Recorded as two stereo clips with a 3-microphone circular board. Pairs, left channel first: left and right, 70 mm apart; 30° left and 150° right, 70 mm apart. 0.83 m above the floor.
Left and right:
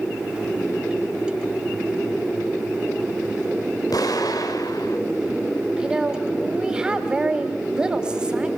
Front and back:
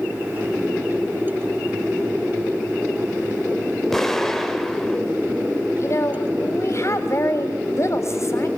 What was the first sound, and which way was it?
An explosion, 115° left.